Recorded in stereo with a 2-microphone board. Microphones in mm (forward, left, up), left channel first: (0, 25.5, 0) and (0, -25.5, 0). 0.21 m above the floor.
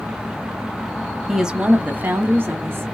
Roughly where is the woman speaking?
Centre.